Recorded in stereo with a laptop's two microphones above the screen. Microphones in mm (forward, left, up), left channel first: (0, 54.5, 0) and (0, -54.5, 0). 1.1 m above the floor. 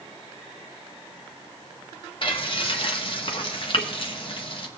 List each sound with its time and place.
2.2 s frying: 50° left (ahead or behind), 0.9 m